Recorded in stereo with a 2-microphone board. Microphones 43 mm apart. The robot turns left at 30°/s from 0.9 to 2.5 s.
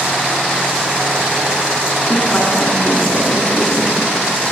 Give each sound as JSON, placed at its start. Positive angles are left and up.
{"t": 2.1, "sound": "a woman speaking", "side_deg": 45, "distance_m": 3.0}